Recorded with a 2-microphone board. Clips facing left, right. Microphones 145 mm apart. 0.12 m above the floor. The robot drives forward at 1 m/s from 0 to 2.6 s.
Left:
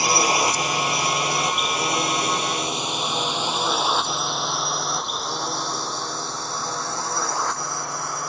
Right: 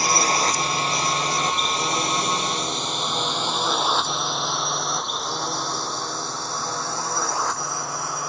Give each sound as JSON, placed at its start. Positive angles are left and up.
{"t": 0.0, "sound": "a drone", "side_deg": 15}